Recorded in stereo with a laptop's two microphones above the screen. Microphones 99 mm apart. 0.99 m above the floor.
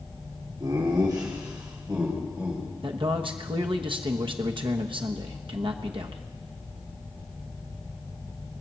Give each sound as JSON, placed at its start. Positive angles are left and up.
{"t": 0.6, "sound": "laughter", "side_deg": -50, "distance_m": 2.5}
{"t": 2.8, "sound": "a man speaking", "side_deg": -60, "distance_m": 1.0}